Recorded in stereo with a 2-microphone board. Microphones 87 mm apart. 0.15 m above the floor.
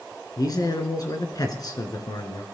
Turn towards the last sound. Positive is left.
turn(degrees=45)  # may be behind; listen again after turning